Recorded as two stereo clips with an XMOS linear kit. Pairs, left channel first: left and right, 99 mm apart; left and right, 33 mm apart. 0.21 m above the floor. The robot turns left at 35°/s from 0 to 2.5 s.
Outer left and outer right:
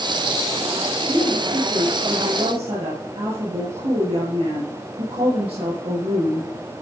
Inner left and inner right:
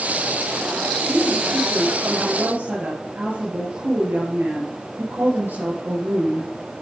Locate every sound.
1.1 s a woman speaking: 45° right, 5 m; by 6.5 s 95° right, 5 m